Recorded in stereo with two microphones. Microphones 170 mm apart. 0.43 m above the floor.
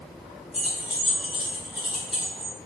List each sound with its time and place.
0.5 s keys jangling: 5° right (ahead or behind), 1.9 m